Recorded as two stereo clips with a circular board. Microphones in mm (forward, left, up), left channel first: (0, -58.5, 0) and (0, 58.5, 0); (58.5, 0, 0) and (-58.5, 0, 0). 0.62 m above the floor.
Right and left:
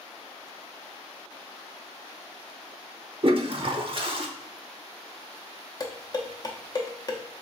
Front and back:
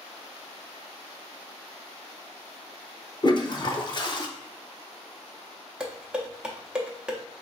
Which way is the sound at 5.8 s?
105° right.